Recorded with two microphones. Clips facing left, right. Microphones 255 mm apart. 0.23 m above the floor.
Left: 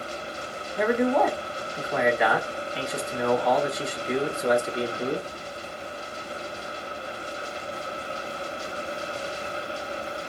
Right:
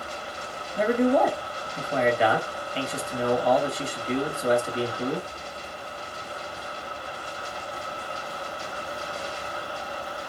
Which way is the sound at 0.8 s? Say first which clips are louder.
Right 1 dB; 35° right (ahead or behind).